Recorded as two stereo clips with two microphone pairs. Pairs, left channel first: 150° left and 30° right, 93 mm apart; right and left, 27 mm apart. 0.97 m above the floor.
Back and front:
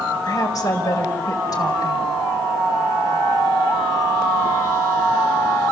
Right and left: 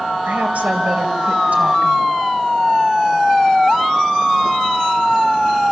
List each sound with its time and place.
0.2 s a woman speaking: 105° left, 4 m